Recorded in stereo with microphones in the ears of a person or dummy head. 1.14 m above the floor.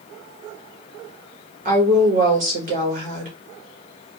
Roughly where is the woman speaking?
Right.